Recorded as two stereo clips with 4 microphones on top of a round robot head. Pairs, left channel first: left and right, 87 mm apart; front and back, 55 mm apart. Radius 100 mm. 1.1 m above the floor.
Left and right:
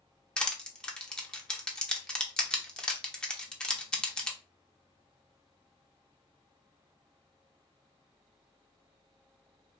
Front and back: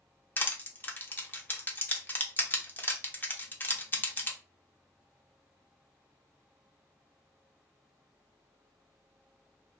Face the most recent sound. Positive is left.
turn(degrees=15)